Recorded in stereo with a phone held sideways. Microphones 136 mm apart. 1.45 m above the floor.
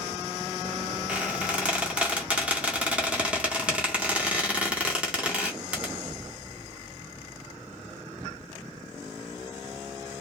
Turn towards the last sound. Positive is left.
turn(degrees=-10)  # may be behind; listen again after turning